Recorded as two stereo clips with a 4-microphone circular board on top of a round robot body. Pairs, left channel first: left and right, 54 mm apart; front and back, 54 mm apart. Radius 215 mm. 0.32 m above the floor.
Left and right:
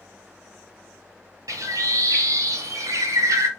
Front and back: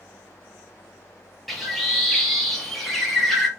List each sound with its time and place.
1.5 s a bird: 90° right, 0.8 m